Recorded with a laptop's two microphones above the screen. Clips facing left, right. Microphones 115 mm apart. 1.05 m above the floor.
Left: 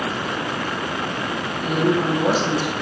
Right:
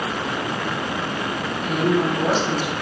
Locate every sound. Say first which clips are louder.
1.6 s a woman speaking: left 1 dB; 30° left (ahead or behind), 1.1 m; by 2.7 s 50° left (ahead or behind), 0.8 m